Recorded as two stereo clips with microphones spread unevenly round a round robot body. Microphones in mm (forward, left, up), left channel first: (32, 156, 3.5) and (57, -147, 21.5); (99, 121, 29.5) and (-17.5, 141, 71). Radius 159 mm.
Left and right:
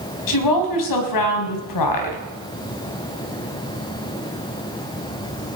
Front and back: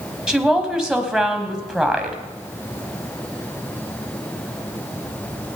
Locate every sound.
0.3 s a woman speaking: 80° left, 3.5 m